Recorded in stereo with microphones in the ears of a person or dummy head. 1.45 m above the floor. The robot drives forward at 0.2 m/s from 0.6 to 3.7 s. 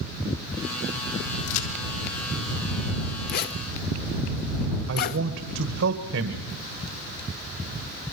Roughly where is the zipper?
Left.